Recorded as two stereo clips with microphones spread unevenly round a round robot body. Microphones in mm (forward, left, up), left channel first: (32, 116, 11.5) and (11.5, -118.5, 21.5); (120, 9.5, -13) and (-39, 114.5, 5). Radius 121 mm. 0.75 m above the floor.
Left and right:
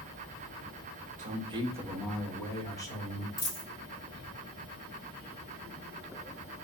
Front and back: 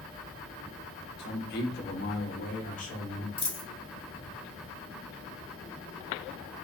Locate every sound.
1.2 s a man speaking: 40° right, 0.7 m; by 3.3 s 15° left, 1.4 m
3.4 s a dropped coin: 30° left, 1.7 m